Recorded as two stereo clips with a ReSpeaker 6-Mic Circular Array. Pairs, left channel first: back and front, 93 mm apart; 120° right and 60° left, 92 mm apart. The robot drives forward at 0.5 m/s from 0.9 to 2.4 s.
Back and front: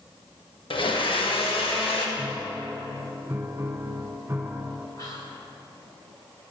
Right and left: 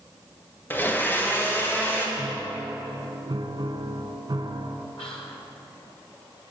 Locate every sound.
0.7 s a blender: 175° left, 1.3 m
2.2 s a piano: 55° left, 0.9 m; by 4.9 s 65° left, 0.9 m
5.0 s whispering: 125° right, 1.3 m